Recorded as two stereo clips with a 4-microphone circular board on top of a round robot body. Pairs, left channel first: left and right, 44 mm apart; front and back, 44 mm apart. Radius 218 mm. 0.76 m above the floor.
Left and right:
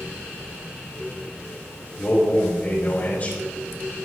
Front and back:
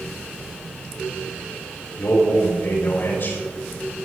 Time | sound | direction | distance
2.0 | a man speaking | 40° left | 5 m